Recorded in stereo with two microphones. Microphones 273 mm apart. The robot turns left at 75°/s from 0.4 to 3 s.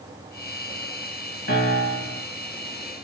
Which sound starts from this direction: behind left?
A piano, at 1.5 s.